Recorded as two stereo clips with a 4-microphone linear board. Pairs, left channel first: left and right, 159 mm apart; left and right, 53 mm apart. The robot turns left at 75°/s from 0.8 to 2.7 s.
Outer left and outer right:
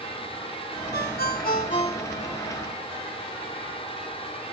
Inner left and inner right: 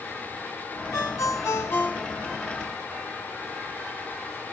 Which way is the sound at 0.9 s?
110° left.